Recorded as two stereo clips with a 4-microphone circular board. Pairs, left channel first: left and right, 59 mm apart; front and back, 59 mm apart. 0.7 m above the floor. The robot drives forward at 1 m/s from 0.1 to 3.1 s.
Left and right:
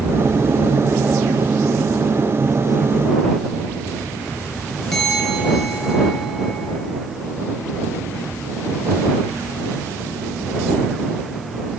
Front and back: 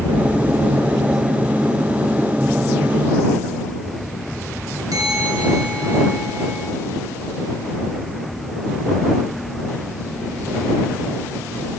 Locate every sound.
4.9 s a bell: 175° left, 5.5 m